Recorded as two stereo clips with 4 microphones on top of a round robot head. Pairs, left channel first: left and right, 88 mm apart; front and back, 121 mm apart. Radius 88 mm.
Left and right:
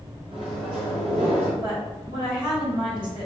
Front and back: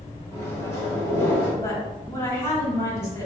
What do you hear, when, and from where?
0.3 s a microwave: 70° right, 0.8 m
1.6 s a woman speaking: 70° right, 1.3 m